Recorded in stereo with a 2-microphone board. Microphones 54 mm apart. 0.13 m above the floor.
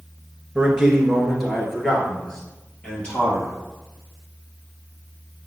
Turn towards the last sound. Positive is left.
turn(degrees=20)  # may be behind; listen again after turning